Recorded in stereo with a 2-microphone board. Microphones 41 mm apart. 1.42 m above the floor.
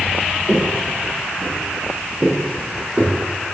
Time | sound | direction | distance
0.5 | footsteps | 35° right (ahead or behind) | 1.6 m